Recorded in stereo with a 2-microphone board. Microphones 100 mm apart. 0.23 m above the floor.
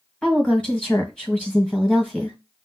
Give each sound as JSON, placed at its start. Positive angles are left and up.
{"t": 0.2, "sound": "a woman speaking", "side_deg": 15, "distance_m": 1.4}